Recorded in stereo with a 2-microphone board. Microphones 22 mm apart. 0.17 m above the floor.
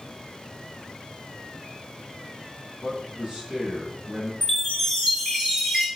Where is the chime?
Centre (ahead or behind), 1.1 m.